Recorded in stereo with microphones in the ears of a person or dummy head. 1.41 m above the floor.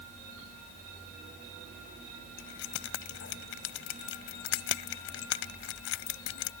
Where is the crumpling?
I don't hear crumpling.